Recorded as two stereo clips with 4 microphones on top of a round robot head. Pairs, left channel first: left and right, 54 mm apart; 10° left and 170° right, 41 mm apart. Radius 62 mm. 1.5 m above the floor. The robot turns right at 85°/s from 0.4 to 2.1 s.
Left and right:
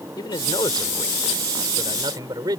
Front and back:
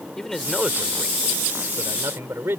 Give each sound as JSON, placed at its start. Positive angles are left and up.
{"t": 0.2, "sound": "a man speaking", "azimuth_deg": 95}